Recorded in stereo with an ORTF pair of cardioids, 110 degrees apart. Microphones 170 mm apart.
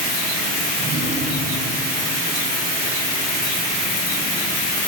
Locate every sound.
0.8 s a drawer: 45° right, 6 m